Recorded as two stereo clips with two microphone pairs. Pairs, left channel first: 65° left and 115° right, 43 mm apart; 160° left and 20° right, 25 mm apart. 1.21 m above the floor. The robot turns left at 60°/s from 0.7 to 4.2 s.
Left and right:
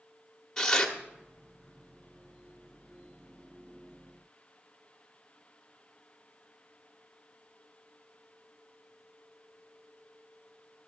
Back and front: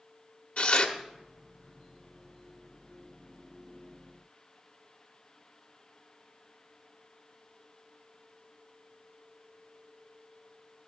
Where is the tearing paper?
145° left, 1.3 m; by 0.9 s 130° left, 1.3 m.